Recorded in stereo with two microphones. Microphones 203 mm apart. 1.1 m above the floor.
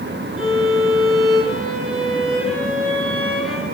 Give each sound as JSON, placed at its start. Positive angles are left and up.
{"t": 0.4, "sound": "a violin", "side_deg": 0, "distance_m": 10.0}